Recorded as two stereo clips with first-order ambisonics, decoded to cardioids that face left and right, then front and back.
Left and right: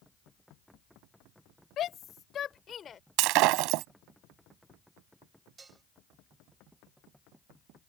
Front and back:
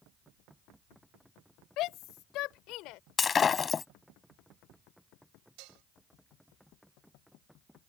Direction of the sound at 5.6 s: 165° right.